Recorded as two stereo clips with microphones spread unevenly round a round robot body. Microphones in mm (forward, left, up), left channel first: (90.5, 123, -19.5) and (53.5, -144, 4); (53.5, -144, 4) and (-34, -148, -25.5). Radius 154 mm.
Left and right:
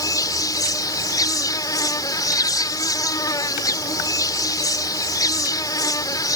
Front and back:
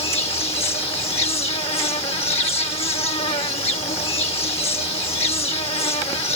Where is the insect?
5° left.